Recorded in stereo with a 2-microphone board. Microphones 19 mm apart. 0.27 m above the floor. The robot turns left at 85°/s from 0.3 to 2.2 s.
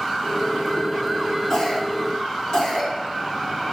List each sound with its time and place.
1.5 s a cough: 45° left (ahead or behind), 2.5 m